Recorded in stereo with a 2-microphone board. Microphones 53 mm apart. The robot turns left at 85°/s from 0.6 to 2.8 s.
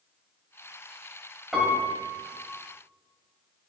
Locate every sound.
1.5 s a piano: straight ahead, 1.9 m; by 2.4 s 75° right, 1.9 m